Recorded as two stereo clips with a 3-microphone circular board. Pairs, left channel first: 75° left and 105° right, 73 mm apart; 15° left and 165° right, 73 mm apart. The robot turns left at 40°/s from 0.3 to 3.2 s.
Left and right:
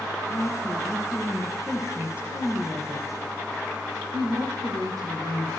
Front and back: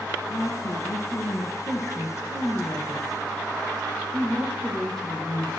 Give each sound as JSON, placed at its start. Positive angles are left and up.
{"t": 0.3, "sound": "a woman speaking", "azimuth_deg": 40, "distance_m": 7.5}